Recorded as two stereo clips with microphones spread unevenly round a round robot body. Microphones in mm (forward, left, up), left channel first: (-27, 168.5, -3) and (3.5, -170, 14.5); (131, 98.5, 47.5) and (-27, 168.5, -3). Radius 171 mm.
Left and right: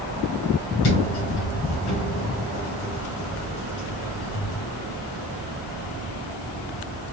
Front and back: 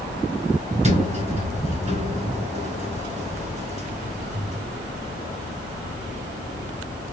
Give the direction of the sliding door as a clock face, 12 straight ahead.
8 o'clock.